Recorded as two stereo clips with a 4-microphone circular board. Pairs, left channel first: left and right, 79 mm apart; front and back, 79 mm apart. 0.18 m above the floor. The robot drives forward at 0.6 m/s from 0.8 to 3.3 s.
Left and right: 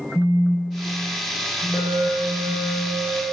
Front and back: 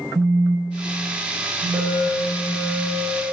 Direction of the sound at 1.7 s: 145° left.